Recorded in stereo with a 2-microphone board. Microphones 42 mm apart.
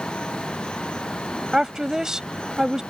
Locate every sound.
1.5 s a woman speaking: 15° right (ahead or behind)